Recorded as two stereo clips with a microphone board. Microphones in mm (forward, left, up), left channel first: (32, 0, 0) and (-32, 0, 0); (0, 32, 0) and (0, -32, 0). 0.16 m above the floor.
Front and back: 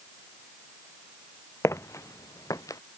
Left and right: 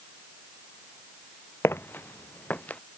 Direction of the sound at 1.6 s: 40° left.